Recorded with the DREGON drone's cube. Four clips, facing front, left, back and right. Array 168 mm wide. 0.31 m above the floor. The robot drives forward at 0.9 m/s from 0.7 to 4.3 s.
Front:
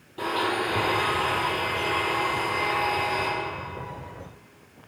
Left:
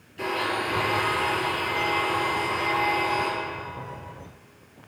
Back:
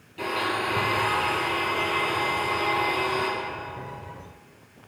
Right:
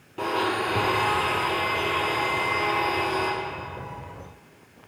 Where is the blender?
70° right, 2.5 m; by 3.3 s 120° right, 3 m.